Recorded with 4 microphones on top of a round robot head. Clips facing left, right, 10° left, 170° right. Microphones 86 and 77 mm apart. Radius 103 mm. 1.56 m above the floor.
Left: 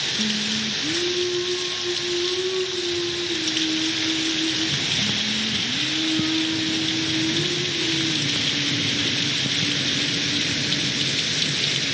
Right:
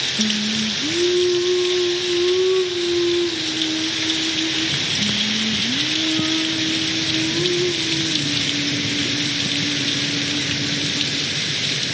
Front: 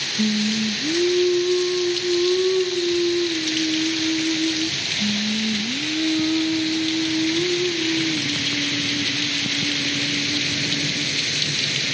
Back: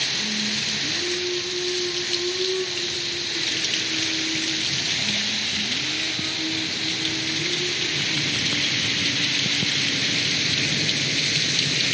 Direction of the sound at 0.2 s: 25° right.